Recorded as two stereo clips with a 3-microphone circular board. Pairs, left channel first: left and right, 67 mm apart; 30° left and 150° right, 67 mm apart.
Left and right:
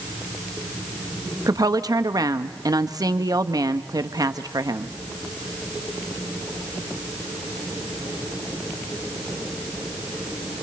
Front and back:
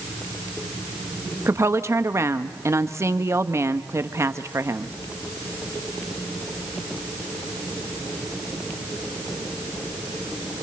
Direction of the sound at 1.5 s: 105° right.